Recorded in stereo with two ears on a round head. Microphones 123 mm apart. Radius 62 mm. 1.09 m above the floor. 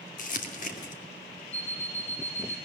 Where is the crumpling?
60° left (ahead or behind), 2 m.